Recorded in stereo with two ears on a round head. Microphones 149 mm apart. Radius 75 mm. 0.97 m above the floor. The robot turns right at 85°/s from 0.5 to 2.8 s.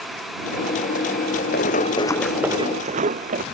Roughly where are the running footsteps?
Left.